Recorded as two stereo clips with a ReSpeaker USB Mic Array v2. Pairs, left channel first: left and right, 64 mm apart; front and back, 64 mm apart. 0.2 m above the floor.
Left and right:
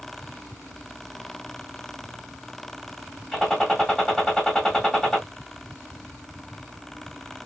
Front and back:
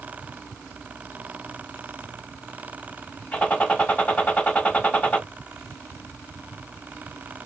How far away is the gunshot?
About 1.5 m.